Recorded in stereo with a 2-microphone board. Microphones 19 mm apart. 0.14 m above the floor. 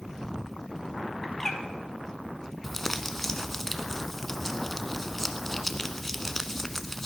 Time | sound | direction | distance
1.2 | a bird | 15° left (ahead or behind) | 1.6 m
2.6 | crumpling | 10° left (ahead or behind) | 0.9 m